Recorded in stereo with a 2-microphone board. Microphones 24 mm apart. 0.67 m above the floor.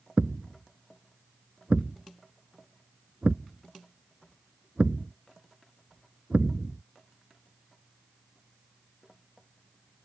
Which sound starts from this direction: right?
A thud, at 0.2 s.